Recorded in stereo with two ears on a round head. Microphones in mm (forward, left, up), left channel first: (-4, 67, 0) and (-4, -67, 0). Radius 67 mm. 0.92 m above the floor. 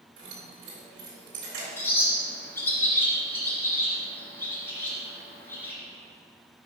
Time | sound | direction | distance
0.2 | keys jangling | 85° right | 3.5 m
1.8 | a bird | 15° left (ahead or behind) | 2.5 m